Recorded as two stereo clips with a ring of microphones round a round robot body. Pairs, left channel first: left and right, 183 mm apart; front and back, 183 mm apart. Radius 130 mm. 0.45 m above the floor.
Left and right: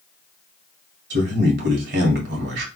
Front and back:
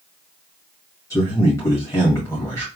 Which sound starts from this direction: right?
A man speaking, at 1.1 s.